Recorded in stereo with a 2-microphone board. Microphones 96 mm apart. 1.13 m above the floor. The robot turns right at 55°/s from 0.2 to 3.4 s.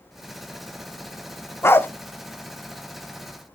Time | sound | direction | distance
1.6 | a dog barking | 25° left (ahead or behind) | 0.5 m